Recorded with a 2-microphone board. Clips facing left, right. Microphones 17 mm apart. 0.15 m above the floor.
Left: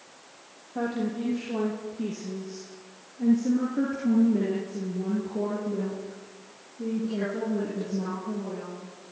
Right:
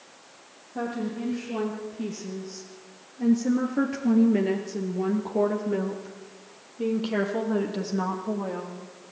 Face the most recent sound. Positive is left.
turn(degrees=-65)  # may be behind; listen again after turning